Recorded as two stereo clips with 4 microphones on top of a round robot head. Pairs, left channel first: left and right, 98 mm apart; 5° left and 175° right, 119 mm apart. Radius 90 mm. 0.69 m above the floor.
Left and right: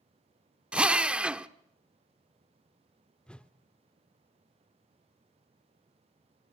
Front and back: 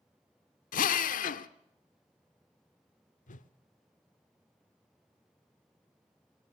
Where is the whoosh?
10° left, 1.0 m.